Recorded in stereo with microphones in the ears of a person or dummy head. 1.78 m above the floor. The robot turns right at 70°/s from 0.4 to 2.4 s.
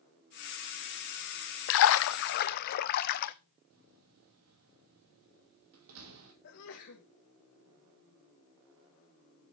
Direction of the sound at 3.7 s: 75° right (ahead or behind).